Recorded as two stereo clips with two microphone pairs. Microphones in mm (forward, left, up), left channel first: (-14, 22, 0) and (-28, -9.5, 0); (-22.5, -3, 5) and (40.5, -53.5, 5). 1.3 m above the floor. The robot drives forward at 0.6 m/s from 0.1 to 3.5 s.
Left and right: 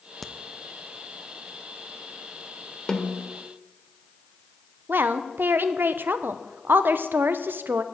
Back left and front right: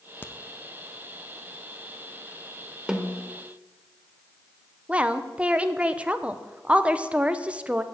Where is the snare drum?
25° left, 1.0 m; by 3.3 s 50° left, 0.9 m.